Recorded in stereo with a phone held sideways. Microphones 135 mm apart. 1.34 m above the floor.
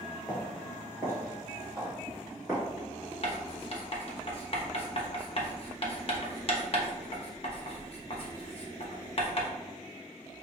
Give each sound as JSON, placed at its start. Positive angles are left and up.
{"t": 0.3, "sound": "footsteps", "side_deg": -15, "distance_m": 1.4}
{"t": 3.2, "sound": "writing", "side_deg": 45, "distance_m": 0.8}